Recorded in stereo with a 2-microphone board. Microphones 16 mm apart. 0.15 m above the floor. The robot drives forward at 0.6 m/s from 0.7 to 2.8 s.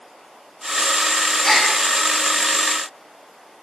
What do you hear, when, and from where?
1.4 s a gasp: 40° left (ahead or behind), 7 m